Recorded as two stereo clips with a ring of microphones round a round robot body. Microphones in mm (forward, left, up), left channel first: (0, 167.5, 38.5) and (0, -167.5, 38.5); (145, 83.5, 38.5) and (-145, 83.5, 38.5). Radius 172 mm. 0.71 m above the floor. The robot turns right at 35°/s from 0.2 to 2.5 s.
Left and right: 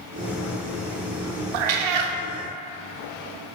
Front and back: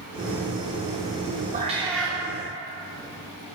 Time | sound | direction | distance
1.5 | a cat meowing | 110° right | 0.6 m